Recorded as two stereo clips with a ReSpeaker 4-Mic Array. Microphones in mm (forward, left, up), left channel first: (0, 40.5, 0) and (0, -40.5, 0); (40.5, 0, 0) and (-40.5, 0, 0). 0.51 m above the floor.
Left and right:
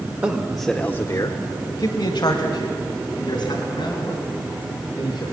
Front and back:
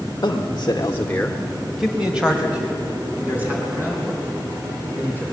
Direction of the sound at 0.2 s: 30° right.